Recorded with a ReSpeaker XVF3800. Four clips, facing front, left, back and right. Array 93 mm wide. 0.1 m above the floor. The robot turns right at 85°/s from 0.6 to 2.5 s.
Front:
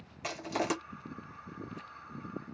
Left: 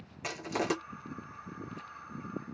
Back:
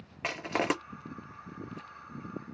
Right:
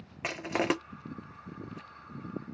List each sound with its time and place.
0.2 s crushing: 140° right, 0.7 m; by 0.7 s 125° right, 0.7 m